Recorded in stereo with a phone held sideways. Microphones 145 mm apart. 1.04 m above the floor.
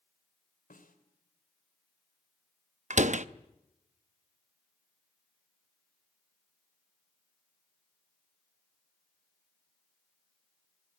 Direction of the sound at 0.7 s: 75° left (ahead or behind).